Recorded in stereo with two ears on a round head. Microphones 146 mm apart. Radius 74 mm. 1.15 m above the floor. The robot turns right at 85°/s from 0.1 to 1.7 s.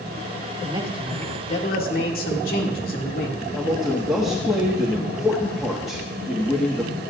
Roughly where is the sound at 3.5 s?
Centre.